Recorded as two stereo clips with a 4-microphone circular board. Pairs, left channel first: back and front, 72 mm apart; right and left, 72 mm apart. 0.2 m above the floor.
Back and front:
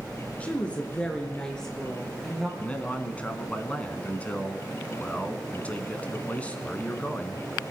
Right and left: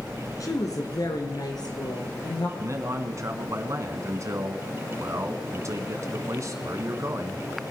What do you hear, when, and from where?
0.4 s a woman speaking: 115° right, 2 m; by 2.5 s 95° right, 3.5 m
2.6 s a man speaking: 115° left, 1.5 m